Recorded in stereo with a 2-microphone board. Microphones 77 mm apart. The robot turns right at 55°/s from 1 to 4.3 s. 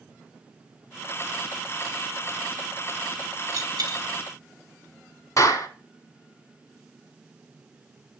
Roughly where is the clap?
Left.